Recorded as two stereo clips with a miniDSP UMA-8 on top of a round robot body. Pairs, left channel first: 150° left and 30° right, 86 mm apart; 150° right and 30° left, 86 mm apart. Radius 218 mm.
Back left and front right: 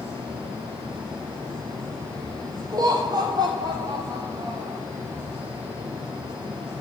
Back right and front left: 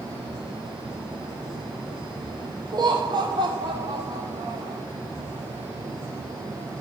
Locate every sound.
2.7 s laughter: 5° left, 1.4 m